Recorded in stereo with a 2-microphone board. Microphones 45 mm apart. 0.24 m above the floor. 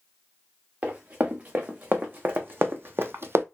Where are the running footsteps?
45° right (ahead or behind), 1.8 m; by 3.5 s 70° right (ahead or behind), 0.5 m.